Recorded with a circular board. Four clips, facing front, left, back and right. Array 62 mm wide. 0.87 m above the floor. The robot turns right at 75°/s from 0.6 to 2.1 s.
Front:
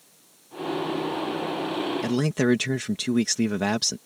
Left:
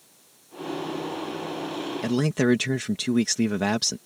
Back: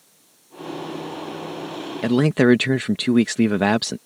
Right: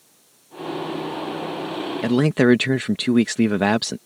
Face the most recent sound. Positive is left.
turn(degrees=-140)